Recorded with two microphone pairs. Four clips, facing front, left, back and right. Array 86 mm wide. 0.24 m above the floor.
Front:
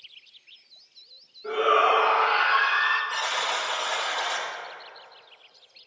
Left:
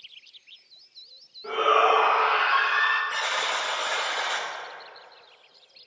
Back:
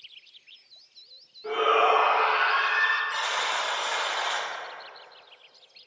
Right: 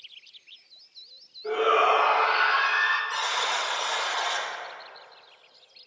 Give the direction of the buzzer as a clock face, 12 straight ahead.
9 o'clock.